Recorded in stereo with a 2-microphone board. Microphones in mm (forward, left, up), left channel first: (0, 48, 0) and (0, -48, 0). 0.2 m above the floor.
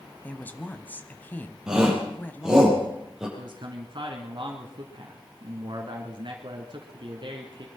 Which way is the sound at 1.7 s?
5° right (ahead or behind).